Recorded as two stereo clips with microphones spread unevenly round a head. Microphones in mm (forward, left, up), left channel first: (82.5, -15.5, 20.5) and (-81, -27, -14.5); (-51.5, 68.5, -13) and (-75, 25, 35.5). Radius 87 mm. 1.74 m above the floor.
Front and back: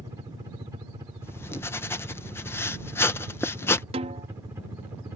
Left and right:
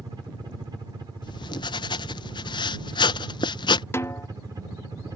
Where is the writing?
50° left.